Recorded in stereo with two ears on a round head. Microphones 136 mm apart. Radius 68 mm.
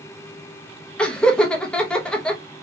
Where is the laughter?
5° left (ahead or behind), 0.8 m.